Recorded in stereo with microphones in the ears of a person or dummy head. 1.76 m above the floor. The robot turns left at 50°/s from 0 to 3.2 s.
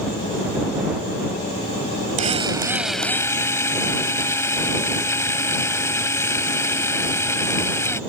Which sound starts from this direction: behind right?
A drill, at 2.2 s.